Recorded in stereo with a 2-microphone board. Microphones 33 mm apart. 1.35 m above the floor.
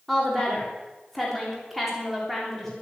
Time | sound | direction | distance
0.1 | a woman speaking | 5° left (ahead or behind) | 3.5 m